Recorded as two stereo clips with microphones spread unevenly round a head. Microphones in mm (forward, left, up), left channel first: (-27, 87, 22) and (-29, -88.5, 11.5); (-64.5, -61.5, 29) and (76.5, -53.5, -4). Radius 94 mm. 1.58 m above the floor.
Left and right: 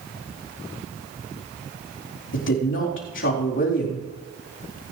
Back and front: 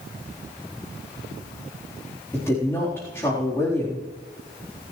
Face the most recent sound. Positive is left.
turn(degrees=105)